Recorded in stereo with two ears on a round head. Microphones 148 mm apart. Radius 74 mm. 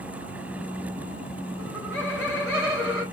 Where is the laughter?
5° left (ahead or behind), 2 m.